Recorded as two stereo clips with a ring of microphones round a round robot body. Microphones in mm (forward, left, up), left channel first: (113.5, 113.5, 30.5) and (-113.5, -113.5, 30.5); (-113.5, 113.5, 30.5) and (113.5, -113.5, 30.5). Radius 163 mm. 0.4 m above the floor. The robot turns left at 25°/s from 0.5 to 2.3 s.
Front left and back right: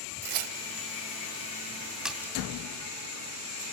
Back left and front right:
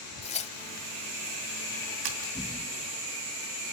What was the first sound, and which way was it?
Tearing paper, 155° right.